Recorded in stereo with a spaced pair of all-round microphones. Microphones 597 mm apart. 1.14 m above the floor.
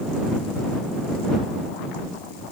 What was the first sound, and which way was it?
Only background noise.